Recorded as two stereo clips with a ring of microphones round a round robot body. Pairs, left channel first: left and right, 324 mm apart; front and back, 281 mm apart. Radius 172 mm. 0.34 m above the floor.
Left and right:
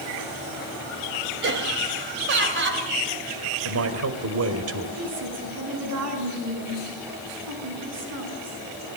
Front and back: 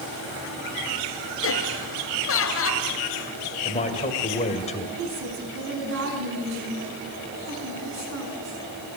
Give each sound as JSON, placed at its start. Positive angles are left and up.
{"t": 1.4, "sound": "laughter", "azimuth_deg": -40, "distance_m": 1.6}
{"t": 3.6, "sound": "a man speaking", "azimuth_deg": -60, "distance_m": 2.0}
{"t": 5.0, "sound": "a woman speaking", "azimuth_deg": -130, "distance_m": 5.5}